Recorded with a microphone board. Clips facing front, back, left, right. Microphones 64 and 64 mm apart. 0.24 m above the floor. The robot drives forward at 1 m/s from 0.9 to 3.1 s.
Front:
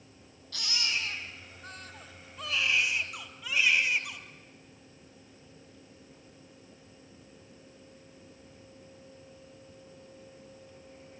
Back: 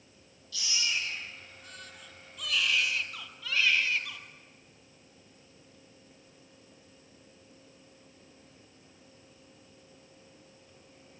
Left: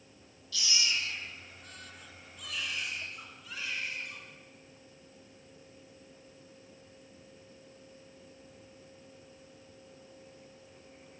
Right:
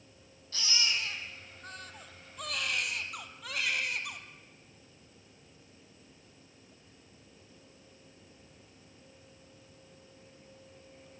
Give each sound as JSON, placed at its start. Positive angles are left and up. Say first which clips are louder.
{"t": 0.5, "sound": "a baby crying", "louder": "even, even", "azimuth_deg": -40, "distance_m": 3.5}